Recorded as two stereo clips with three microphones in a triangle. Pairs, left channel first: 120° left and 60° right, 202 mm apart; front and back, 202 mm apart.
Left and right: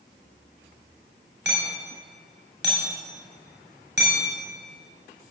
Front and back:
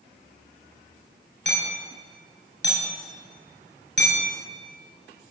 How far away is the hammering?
About 8.5 m.